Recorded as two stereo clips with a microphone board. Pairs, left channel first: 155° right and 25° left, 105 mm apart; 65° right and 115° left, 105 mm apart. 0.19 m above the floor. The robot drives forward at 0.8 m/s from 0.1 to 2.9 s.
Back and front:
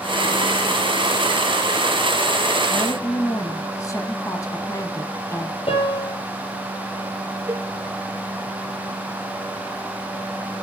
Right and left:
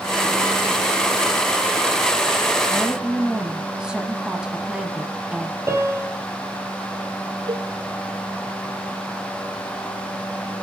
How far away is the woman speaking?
About 1.0 m.